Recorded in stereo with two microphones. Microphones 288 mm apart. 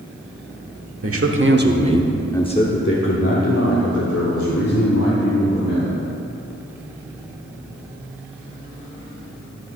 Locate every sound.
1.0 s a man speaking: 55° right (ahead or behind), 1.2 m; by 6.0 s 70° left (ahead or behind), 3.5 m